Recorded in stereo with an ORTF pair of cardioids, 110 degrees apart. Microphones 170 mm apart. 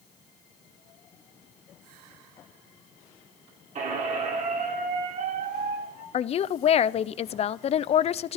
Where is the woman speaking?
40° left, 0.5 m.